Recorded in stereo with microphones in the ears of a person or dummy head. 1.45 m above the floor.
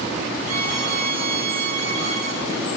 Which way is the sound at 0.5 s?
70° right (ahead or behind).